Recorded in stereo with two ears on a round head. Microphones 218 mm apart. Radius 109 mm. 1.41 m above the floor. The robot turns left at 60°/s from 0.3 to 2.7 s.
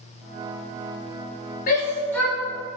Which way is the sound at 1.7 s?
35° left (ahead or behind).